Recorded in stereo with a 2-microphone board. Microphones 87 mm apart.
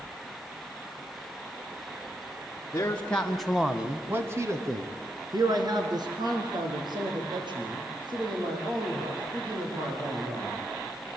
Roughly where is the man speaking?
Left.